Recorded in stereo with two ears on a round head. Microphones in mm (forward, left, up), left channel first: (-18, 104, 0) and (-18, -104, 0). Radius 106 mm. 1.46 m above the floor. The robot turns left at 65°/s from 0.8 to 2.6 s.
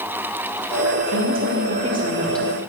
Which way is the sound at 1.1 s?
100° right.